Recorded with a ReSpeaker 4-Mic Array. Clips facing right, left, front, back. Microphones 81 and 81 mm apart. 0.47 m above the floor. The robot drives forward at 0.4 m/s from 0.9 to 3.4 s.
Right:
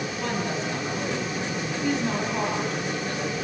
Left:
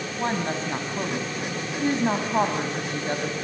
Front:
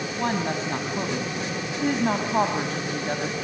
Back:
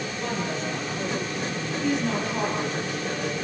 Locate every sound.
0.1 s a woman speaking: 35° left, 4 m; by 3.3 s 45° left, 3.5 m